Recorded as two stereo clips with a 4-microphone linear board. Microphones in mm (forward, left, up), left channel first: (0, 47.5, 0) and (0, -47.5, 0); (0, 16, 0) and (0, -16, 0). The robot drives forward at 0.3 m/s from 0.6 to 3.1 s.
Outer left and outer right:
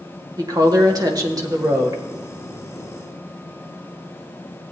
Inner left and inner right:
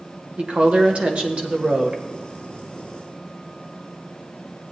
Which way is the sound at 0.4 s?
40° right (ahead or behind).